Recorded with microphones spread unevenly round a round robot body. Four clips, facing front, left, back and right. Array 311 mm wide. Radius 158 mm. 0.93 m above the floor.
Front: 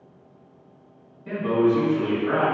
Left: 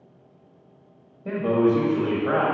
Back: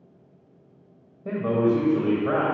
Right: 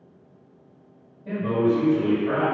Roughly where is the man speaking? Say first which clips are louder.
Left 2 dB, front 1 dB; behind left.